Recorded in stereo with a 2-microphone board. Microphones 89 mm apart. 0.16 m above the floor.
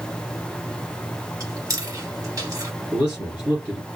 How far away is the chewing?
About 1.9 m.